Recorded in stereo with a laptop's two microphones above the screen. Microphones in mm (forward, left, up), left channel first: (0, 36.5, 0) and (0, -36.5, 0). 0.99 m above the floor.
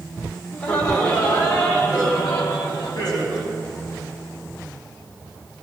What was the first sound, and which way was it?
Laughter, 55° left (ahead or behind).